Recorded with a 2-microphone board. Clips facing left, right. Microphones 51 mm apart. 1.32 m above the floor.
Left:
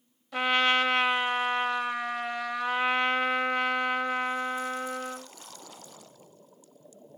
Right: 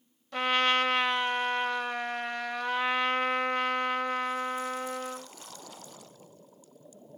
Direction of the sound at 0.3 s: Centre (ahead or behind).